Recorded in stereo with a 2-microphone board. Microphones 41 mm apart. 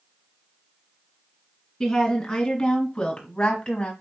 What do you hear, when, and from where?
1.8 s a woman speaking: 10° left (ahead or behind), 2.0 m; by 3.9 s 25° left (ahead or behind), 1.3 m